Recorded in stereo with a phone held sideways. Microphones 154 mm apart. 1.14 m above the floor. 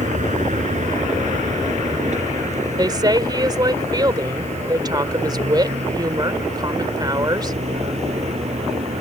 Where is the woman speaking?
25° right (ahead or behind).